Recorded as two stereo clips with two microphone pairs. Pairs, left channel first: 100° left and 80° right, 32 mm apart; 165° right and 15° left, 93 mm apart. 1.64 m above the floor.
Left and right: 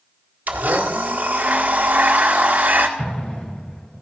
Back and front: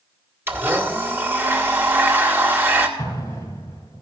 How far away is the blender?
About 1.7 m.